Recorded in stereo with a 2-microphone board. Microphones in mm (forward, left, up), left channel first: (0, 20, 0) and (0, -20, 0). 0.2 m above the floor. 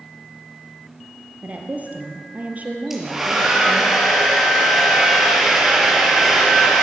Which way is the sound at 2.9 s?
10° right (ahead or behind).